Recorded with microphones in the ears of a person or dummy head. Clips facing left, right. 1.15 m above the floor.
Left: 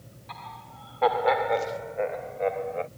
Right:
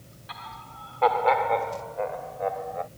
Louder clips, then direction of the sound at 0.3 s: Even; 15° right (ahead or behind).